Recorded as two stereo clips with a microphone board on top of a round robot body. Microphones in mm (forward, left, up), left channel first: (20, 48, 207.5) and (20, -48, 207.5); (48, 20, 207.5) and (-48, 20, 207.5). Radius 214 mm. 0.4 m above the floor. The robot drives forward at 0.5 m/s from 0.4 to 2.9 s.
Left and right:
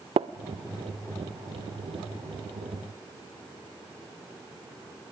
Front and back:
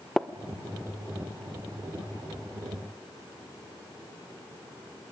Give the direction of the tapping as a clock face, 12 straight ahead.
3 o'clock.